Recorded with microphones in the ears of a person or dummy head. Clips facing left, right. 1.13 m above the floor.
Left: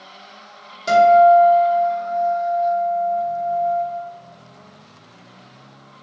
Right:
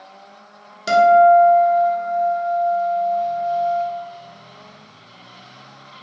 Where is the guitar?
15° right (ahead or behind), 0.7 m.